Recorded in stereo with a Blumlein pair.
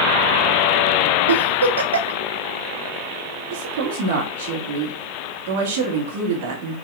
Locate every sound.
1.3 s a giggle: 70° right, 0.7 m
3.5 s a woman speaking: 55° right, 1.4 m